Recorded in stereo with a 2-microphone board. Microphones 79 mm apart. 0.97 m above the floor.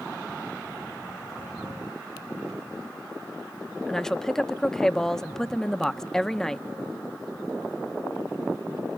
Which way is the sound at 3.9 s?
5° left (ahead or behind).